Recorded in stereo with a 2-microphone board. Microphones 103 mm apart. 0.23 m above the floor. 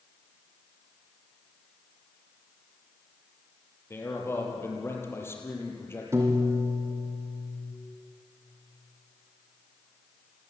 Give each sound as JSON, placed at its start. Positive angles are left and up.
{"t": 3.9, "sound": "a man speaking", "side_deg": 25, "distance_m": 5.5}
{"t": 6.1, "sound": "a piano", "side_deg": -25, "distance_m": 3.5}